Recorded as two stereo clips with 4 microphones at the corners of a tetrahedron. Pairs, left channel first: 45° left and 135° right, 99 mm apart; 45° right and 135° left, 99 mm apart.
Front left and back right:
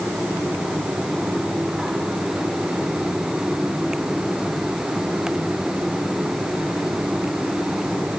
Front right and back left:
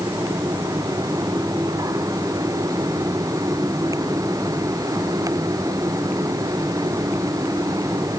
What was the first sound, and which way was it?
Only background noise.